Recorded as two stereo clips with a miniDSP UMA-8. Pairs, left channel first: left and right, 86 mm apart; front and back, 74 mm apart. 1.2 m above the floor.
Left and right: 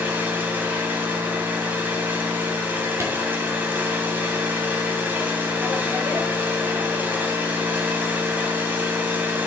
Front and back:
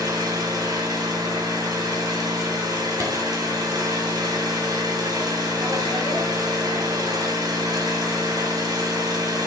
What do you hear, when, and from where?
0.0 s an engine running: 160° right, 3 m
3.0 s a clap: 145° right, 2.5 m